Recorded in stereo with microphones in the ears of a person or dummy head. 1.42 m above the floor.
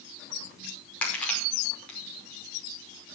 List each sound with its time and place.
1.0 s crushing: 5° left (ahead or behind), 5.5 m